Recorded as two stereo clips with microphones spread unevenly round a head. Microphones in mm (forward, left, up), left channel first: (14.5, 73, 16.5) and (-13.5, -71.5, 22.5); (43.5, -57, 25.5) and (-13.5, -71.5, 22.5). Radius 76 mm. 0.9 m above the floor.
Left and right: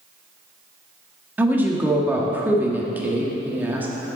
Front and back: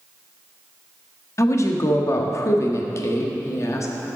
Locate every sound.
1.4 s a woman speaking: 20° right, 1.3 m